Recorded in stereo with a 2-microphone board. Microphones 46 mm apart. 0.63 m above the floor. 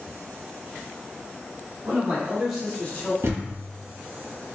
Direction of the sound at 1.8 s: 50° right (ahead or behind).